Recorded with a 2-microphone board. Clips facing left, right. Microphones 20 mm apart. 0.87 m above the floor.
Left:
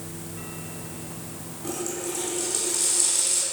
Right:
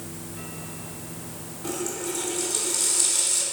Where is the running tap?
5° left (ahead or behind), 5.5 m.